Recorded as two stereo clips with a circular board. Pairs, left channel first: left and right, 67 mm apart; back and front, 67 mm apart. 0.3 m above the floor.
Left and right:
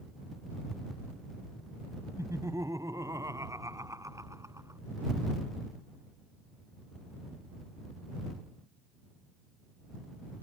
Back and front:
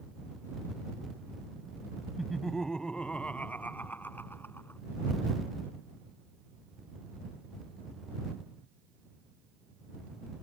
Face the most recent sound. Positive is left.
turn(degrees=-130)